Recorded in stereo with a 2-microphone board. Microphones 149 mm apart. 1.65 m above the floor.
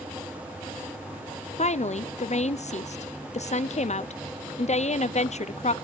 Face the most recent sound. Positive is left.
turn(degrees=50)  # may be behind; listen again after turning